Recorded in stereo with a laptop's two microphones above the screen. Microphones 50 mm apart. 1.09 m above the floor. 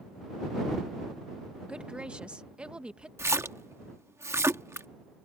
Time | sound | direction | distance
1.7 | a woman speaking | 20° right (ahead or behind) | ?
3.2 | a splash | 65° right (ahead or behind) | ?